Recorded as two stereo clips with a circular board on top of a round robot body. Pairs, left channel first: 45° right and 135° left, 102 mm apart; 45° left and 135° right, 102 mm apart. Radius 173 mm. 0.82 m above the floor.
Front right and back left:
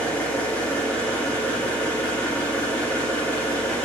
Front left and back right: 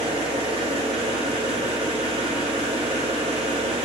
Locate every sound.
0.0 s an engine running: 120° right, 2.5 m